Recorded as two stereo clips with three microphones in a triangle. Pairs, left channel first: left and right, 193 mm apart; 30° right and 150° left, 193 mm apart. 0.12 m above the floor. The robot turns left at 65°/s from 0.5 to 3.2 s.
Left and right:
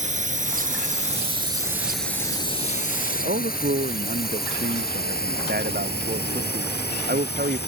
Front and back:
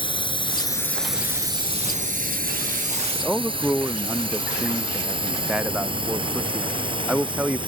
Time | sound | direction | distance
0.0 | a drone | 80° right | ?
3.1 | a man speaking | 120° right | ?